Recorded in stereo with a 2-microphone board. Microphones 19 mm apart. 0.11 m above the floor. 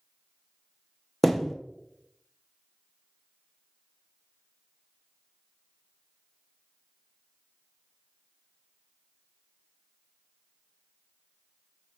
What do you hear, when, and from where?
1.2 s a thud: centre (ahead or behind), 0.6 m